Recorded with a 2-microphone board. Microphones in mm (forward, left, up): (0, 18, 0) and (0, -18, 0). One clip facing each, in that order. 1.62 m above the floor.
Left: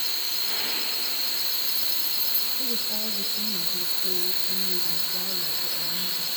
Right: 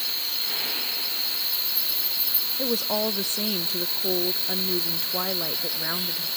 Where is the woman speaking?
75° right (ahead or behind), 0.6 m.